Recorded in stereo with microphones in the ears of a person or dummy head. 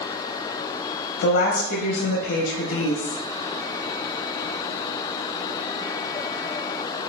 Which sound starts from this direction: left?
A woman speaking, at 1.2 s.